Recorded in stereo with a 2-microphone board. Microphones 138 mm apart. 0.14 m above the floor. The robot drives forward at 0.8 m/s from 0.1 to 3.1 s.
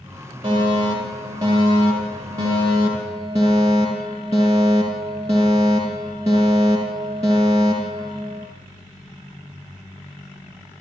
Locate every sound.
0.4 s a fire alarm: 35° right (ahead or behind), 7 m; by 8.5 s 25° right (ahead or behind), 9 m